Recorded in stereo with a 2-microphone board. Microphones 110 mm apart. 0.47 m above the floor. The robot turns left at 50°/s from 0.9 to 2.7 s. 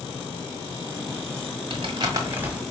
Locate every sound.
1.7 s crumpling: 55° right (ahead or behind), 1.4 m; by 2.6 s 10° right (ahead or behind), 1.4 m